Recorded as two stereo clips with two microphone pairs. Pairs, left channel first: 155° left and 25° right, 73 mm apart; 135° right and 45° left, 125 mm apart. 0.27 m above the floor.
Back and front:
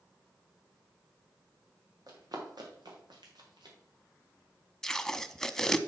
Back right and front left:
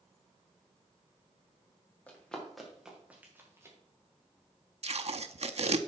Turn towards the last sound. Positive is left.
turn(degrees=75)